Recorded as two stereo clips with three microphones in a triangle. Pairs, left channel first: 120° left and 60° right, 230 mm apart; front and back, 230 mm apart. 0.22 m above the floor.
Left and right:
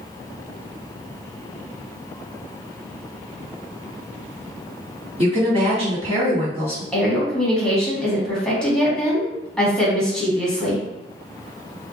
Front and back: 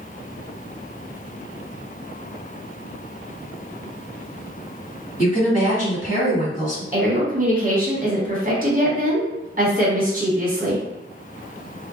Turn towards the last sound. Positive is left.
turn(degrees=-155)